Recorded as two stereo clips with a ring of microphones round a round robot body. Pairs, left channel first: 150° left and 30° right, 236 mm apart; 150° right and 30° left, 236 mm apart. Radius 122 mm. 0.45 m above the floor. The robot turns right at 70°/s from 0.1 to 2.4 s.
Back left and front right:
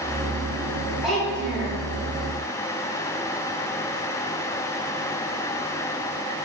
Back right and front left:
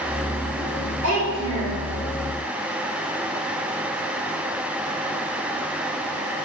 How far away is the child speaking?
About 2 m.